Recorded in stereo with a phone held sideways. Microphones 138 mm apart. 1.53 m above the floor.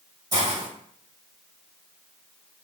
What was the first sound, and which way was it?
A hiss, 30° right (ahead or behind).